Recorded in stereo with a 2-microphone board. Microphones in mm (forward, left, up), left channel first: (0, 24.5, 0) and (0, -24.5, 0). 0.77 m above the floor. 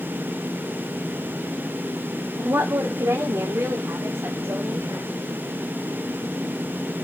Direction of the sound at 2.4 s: 70° right (ahead or behind).